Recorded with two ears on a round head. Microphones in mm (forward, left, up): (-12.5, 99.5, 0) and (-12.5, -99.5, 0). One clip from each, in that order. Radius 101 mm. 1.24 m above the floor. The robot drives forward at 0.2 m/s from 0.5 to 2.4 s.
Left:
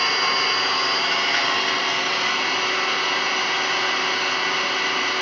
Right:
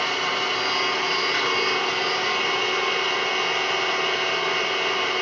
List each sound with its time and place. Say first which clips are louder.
0.0 s an engine running: left 4 dB; 85° left, 2.5 m; by 5.2 s 75° left (ahead or behind), 2.5 m